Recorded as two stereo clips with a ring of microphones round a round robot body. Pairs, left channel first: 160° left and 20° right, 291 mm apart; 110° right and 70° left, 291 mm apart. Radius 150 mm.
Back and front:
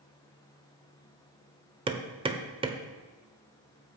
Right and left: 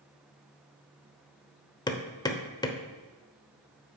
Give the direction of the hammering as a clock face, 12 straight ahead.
2 o'clock.